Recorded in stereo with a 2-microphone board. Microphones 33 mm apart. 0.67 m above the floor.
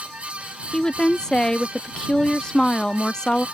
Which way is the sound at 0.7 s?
25° left (ahead or behind).